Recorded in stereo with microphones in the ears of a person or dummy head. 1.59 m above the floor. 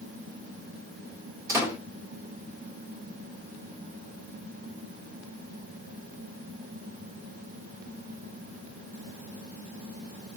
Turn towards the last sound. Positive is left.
turn(degrees=-10)  # may be behind; listen again after turning